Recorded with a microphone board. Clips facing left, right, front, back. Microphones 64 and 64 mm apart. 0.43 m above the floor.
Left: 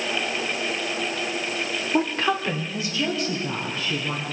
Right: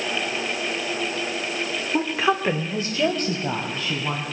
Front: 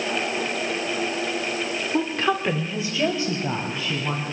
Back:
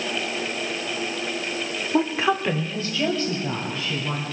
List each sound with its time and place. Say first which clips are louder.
1.9 s a woman speaking: right 1 dB, back 2 dB; 150° left, 1.0 m; by 4.2 s 60° right, 3.5 m